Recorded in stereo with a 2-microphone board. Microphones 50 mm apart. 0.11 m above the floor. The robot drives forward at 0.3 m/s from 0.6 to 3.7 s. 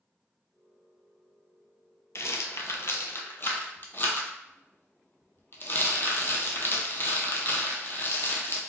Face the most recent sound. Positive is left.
turn(degrees=40)  # may be behind; listen again after turning